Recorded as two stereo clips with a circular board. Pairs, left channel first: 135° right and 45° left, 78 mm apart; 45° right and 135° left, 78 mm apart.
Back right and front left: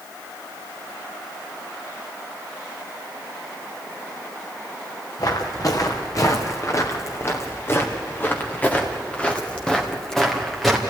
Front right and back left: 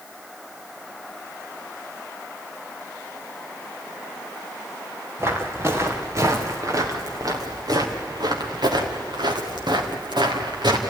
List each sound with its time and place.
5.2 s footsteps: 170° right, 3.5 m; by 10.8 s 135° left, 3.5 m